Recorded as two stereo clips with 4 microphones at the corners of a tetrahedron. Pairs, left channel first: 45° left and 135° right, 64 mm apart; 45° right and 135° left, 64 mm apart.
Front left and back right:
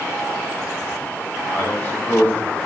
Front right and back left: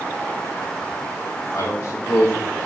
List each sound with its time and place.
1.5 s a man speaking: 10° right, 2.5 m